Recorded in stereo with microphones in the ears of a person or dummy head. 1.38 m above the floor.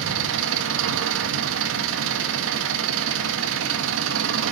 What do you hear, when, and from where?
0.0 s an engine running: 70° right (ahead or behind), 1.3 m